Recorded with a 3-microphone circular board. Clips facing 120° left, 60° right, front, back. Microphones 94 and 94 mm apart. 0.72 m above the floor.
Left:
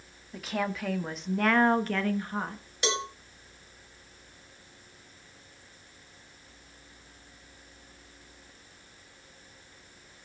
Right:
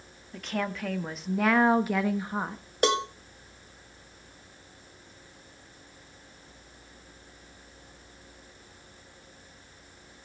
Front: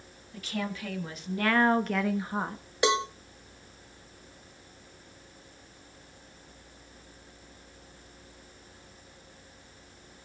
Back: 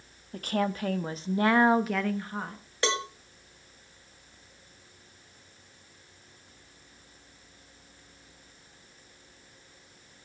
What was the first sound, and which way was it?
A woman speaking, 155° right.